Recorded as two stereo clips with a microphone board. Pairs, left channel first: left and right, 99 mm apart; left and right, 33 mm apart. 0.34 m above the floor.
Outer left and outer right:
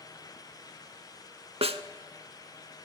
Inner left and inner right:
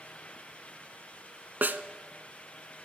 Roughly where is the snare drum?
Right.